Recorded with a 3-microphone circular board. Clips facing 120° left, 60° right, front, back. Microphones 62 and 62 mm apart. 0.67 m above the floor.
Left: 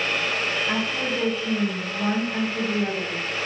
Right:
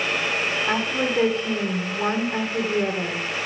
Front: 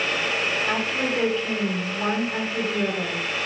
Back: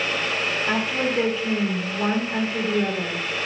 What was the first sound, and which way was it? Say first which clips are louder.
A woman speaking: right 2 dB, back 1 dB; 100° right.